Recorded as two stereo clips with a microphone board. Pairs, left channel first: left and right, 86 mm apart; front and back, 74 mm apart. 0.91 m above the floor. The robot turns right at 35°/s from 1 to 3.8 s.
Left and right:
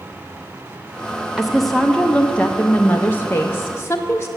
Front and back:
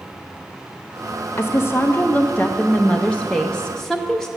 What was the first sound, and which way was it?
A woman speaking, 5° right.